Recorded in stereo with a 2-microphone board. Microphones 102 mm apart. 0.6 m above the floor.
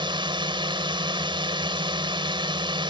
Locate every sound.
0.0 s a drone: 55° right (ahead or behind)